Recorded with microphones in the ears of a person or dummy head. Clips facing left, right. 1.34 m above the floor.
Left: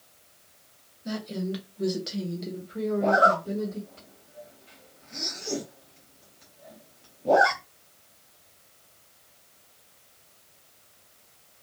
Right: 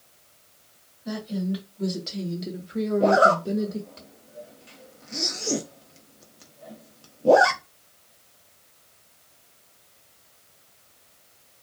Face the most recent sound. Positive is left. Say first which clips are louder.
# right 4 dB
turn(degrees=-55)  # may be behind; listen again after turning